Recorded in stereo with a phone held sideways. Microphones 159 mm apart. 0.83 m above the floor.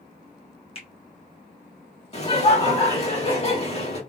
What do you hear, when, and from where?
0.8 s a finger snap: 35° left (ahead or behind), 1.0 m
2.1 s laughter: 40° left (ahead or behind), 1.6 m